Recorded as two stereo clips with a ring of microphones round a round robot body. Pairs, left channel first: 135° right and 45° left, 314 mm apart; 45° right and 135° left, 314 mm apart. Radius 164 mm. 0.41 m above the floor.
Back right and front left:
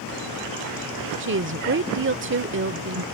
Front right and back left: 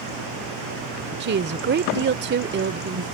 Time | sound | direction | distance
1.2 | a woman speaking | 85° left | ?